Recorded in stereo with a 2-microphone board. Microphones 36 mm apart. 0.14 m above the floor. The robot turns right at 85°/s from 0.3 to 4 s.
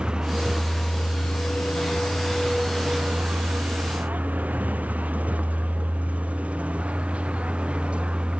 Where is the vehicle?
25° right (ahead or behind); by 8.4 s 35° right (ahead or behind).